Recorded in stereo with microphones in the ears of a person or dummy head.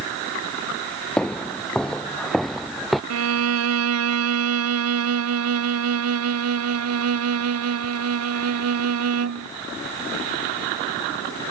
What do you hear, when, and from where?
1.2 s footsteps: centre (ahead or behind); by 3.0 s 5° right (ahead or behind)
3.1 s a violin: 80° right